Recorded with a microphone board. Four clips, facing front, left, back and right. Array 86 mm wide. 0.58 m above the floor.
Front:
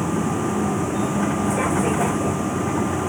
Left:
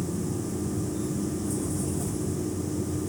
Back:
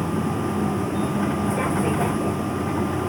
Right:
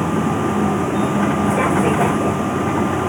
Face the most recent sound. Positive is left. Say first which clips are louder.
# right 12 dB, front 2 dB
turn(degrees=-80)